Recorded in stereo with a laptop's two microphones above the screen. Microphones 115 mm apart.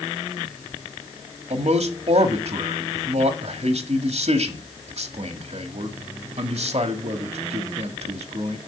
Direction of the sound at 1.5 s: 70° right (ahead or behind).